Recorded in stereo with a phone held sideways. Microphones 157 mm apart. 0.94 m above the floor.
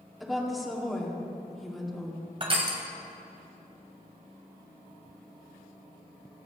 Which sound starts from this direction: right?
Crushing, at 2.4 s.